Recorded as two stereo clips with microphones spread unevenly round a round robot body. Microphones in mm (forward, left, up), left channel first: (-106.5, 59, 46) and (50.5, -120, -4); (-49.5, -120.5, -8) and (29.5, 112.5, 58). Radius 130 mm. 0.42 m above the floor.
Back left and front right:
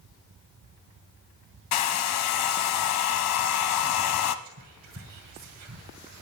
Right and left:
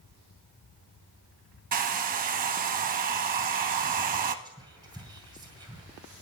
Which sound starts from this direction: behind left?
A hair dryer, at 1.7 s.